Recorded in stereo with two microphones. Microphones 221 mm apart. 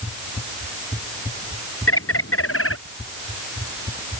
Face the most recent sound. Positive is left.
turn(degrees=80)